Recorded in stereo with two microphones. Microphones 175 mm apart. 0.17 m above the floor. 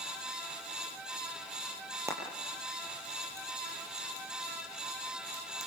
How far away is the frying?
About 5.5 m.